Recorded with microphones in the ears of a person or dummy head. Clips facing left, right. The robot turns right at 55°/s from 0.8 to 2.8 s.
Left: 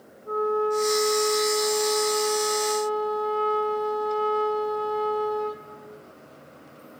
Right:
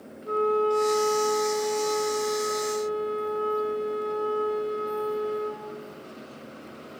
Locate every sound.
0.2 s a flute: 40° right, 1.5 m; by 5.7 s 70° left, 1.5 m